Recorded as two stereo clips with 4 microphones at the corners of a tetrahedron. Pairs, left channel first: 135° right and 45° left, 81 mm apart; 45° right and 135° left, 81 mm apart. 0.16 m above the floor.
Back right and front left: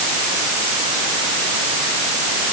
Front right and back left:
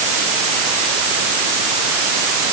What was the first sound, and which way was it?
Only background noise.